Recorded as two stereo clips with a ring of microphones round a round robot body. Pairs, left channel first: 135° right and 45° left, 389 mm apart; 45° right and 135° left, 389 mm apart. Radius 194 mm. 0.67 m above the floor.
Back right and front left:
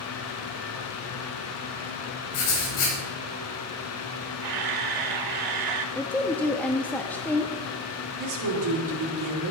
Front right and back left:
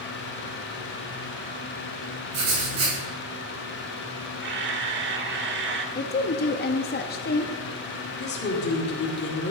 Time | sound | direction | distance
2.3 | writing | 175° right | 3.5 m
4.4 | a camera shutter | 75° left | 1.1 m
6.0 | a woman speaking | 55° right | 0.6 m
8.2 | a woman speaking | 15° left | 2 m